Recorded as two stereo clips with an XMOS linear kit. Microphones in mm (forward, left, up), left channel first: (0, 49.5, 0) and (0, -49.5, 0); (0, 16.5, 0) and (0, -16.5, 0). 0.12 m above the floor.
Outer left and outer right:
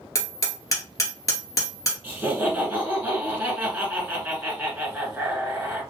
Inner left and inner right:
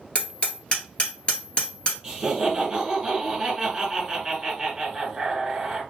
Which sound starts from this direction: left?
Hammering, at 0.1 s.